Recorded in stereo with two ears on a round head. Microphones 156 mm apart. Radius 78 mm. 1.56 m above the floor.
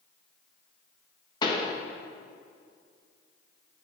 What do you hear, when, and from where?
1.4 s a pop: 25° left (ahead or behind), 1.4 m